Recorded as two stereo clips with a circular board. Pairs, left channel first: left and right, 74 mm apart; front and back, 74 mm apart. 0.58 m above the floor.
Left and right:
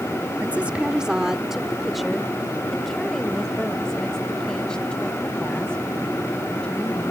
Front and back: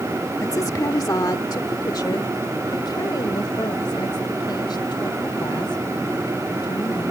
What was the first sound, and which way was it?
A woman speaking, 25° right.